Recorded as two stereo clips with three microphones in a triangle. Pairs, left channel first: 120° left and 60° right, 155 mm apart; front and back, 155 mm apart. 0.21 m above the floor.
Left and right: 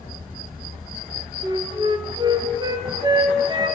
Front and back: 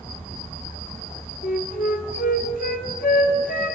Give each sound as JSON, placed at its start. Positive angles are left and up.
{"t": 1.4, "sound": "a flute", "azimuth_deg": 0, "distance_m": 1.0}